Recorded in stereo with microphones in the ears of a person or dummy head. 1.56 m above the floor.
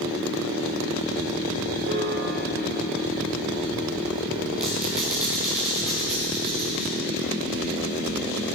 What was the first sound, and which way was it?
A piano, 65° right (ahead or behind).